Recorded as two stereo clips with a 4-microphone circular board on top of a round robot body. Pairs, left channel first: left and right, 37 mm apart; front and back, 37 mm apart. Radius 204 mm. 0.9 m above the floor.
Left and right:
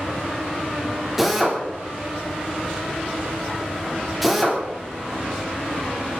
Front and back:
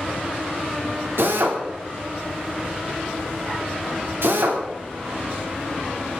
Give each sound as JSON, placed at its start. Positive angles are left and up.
{"t": 1.2, "sound": "a drill", "azimuth_deg": -175, "distance_m": 3.5}